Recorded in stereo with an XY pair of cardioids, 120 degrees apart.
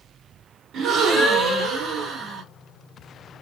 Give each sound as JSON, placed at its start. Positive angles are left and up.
{"t": 0.7, "sound": "a gasp", "azimuth_deg": -60, "distance_m": 1.4}